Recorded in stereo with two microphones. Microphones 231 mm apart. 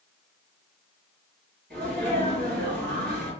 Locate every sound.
1.7 s a sneeze: 45° right (ahead or behind), 1.9 m